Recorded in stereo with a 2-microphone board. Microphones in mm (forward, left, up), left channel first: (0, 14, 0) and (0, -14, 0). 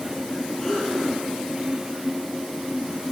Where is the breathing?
15° left (ahead or behind), 10 m.